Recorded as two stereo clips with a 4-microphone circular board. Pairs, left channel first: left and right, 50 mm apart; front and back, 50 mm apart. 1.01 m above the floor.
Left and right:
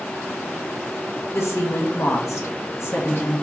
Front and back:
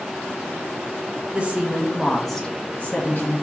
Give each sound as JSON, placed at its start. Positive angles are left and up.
{"t": 1.3, "sound": "a woman speaking", "azimuth_deg": 115, "distance_m": 1.0}